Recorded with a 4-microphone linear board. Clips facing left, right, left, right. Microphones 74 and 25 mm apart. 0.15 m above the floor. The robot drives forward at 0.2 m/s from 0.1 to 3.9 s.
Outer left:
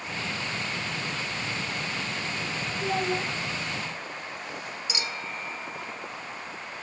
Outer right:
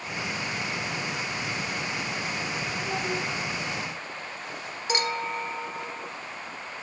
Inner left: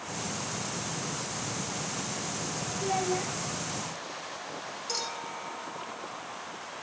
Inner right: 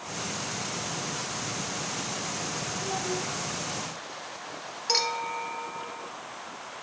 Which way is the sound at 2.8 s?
55° left (ahead or behind).